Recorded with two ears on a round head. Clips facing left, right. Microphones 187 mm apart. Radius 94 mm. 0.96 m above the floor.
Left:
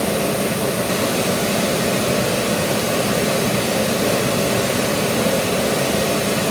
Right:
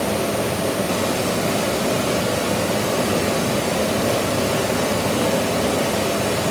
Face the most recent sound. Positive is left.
turn(degrees=25)  # may be behind; listen again after turning